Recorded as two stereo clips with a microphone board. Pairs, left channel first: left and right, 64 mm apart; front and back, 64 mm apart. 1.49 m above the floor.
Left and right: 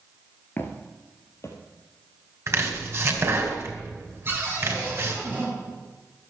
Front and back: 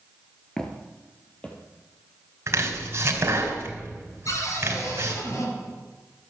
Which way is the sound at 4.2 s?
35° right.